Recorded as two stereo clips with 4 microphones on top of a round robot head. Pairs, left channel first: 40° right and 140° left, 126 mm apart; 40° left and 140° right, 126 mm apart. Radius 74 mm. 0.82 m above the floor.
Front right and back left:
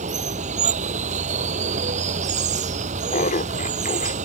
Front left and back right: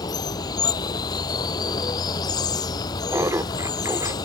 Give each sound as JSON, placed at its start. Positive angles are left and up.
{"t": 0.0, "sound": "running water", "azimuth_deg": 105}
{"t": 3.1, "sound": "laughter", "azimuth_deg": -70}